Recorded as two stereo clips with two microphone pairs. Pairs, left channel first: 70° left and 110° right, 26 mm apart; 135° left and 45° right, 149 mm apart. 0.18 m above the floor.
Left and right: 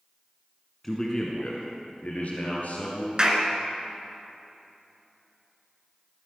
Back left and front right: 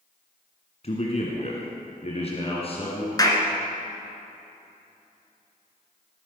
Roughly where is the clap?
Behind.